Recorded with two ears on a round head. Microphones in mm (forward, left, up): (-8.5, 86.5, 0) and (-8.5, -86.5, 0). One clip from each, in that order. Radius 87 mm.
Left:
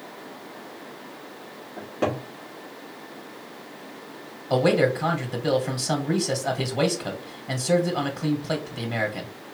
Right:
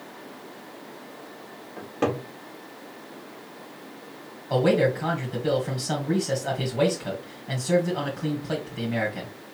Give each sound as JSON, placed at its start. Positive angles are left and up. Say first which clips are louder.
{"t": 1.8, "sound": "a cupboard door", "louder": "even", "side_deg": -5, "distance_m": 1.8}
{"t": 4.5, "sound": "a man speaking", "louder": "left 1 dB", "side_deg": 50, "distance_m": 1.4}